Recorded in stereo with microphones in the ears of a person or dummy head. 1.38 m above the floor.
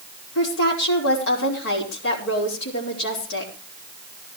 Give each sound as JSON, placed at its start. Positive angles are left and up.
{"t": 0.3, "sound": "a woman speaking", "side_deg": 65, "distance_m": 5.0}